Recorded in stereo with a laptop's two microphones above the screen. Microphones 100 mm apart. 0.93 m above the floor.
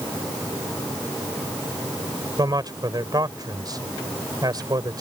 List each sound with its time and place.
2.4 s a man speaking: 40° right (ahead or behind)